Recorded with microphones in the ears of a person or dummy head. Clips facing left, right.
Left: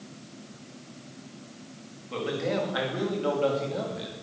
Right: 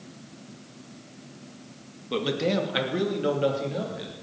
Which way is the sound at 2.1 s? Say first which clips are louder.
Right 3 dB; 55° right (ahead or behind).